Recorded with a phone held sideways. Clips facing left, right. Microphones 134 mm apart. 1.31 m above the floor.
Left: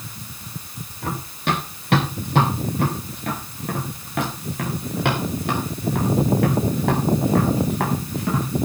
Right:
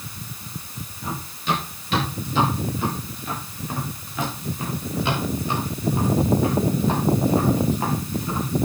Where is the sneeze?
I don't hear a sneeze.